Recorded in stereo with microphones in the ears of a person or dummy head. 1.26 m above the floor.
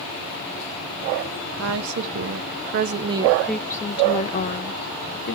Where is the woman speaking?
75° right (ahead or behind), 1.2 m; by 5.3 s 60° left (ahead or behind), 1.4 m.